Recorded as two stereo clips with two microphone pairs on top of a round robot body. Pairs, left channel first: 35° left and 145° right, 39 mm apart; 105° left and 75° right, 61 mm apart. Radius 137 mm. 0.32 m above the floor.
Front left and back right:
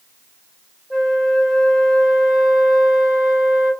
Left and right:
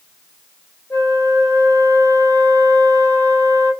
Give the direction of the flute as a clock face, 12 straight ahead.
8 o'clock.